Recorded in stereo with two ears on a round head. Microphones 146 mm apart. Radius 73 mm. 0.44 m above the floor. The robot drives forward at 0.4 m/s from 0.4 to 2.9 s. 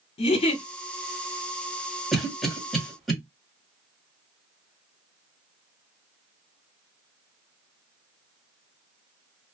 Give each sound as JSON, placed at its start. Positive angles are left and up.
{"t": 0.2, "sound": "a giggle", "side_deg": 35, "distance_m": 1.7}
{"t": 2.1, "sound": "a cough", "side_deg": 0, "distance_m": 1.4}